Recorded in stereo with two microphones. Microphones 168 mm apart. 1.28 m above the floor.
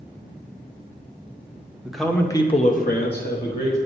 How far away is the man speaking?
About 1.4 m.